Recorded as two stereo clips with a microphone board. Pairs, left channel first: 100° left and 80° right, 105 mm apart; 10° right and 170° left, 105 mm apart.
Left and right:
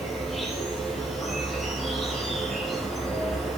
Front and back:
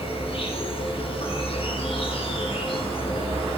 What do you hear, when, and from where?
0.0 s an insect: 10° left, 5 m